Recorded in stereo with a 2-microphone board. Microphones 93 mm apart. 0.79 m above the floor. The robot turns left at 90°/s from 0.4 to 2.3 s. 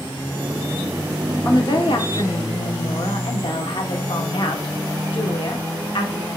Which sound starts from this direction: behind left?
A woman speaking, at 1.4 s.